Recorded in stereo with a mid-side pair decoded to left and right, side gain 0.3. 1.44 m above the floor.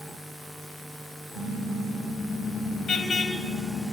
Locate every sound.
1.3 s a car horn: 70° left, 4.5 m; by 3.8 s 55° left, 5.5 m